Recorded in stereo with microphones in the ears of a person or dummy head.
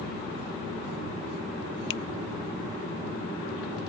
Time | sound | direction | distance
1.9 | a finger snap | 70° left (ahead or behind) | ?